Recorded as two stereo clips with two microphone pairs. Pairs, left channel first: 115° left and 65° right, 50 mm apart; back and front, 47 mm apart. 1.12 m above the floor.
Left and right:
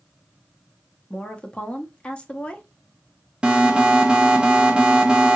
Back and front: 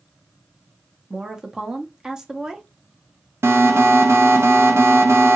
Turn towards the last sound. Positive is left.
turn(degrees=5)